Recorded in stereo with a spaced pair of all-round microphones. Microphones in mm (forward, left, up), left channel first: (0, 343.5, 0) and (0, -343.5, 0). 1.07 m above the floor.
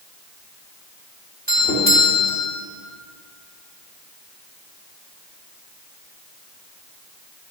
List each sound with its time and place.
1.5 s a doorbell: 10° right (ahead or behind), 4 m